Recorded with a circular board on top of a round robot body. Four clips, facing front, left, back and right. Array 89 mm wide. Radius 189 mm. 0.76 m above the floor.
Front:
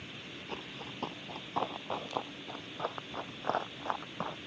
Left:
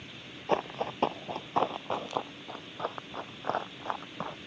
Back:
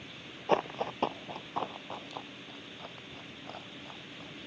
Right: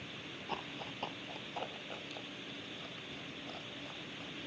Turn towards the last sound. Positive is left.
turn(degrees=45)